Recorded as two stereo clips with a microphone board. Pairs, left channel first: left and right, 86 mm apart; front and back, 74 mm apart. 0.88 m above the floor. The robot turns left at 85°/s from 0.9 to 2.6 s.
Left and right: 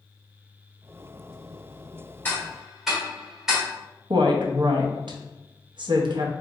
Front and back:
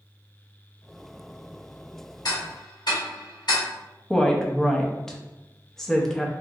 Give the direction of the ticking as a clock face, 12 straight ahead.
11 o'clock.